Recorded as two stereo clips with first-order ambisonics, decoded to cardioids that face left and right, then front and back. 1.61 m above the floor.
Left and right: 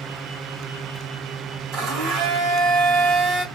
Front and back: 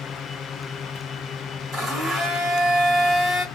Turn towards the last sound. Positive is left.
turn(degrees=-125)